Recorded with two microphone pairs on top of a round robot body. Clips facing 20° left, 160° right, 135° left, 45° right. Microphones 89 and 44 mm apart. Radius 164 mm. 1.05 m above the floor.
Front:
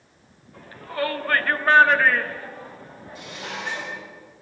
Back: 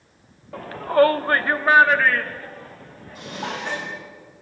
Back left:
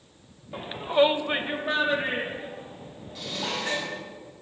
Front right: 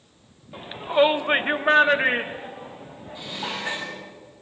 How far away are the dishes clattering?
About 7 m.